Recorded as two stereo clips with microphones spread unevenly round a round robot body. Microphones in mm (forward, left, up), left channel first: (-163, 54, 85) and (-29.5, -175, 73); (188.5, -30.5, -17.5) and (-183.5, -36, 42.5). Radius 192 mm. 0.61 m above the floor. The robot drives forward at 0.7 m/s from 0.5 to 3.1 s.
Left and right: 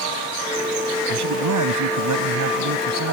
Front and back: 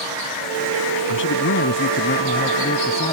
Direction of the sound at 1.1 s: 55° right.